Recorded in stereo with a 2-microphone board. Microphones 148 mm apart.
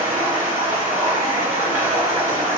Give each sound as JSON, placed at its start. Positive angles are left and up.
{"t": 0.0, "sound": "running water", "side_deg": -50, "distance_m": 1.7}